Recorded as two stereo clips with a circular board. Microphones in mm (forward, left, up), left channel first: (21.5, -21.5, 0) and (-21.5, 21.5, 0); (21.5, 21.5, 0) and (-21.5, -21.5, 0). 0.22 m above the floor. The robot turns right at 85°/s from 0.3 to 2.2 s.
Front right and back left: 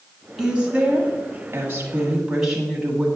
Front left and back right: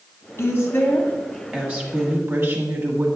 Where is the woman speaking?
50° left, 1.2 m; by 3.1 s 155° right, 1.2 m.